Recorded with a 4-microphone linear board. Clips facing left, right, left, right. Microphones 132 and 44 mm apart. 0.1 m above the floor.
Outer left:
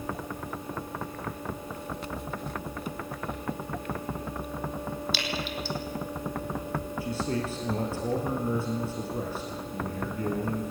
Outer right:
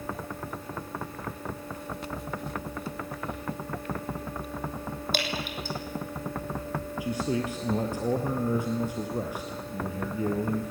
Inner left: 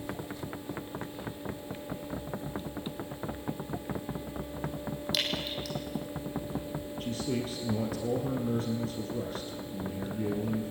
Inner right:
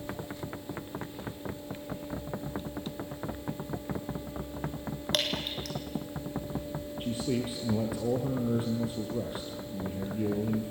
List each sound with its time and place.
5.1 s dripping: 50° right (ahead or behind), 3 m
7.0 s a man speaking: 15° right (ahead or behind), 1.9 m